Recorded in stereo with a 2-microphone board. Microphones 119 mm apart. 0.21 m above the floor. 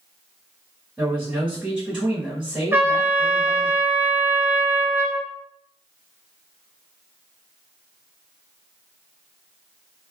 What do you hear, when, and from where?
1.0 s a man speaking: 5° right (ahead or behind), 1.1 m
2.7 s a trumpet: 20° right (ahead or behind), 0.7 m